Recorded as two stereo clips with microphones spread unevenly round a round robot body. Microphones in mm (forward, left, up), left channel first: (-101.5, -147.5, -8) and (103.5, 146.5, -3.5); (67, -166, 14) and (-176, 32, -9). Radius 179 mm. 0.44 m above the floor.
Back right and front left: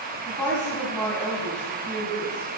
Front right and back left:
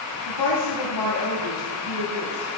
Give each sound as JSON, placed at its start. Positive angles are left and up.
{"t": 0.3, "sound": "a woman speaking", "azimuth_deg": -35, "distance_m": 2.5}